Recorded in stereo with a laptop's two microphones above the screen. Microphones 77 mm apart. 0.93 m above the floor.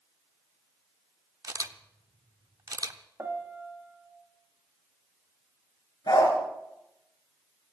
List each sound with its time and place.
1.4 s a camera shutter: 50° right (ahead or behind), 0.9 m
3.2 s a piano: 35° right (ahead or behind), 1.9 m
6.1 s a dog barking: 70° left (ahead or behind), 5 m